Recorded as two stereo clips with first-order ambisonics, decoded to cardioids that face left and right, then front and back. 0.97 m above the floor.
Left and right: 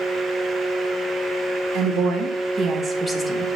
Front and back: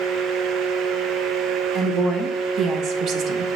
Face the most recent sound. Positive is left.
turn(degrees=145)